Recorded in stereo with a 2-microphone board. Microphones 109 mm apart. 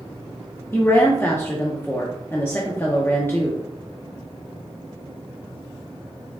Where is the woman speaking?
20° left (ahead or behind), 0.7 m.